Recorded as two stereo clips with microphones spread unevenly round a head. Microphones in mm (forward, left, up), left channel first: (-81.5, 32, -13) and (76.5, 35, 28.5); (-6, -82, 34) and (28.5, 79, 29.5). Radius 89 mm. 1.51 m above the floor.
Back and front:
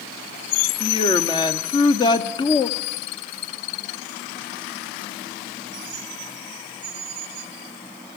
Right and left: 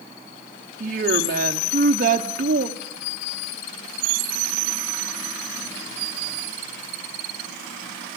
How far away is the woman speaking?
About 0.8 m.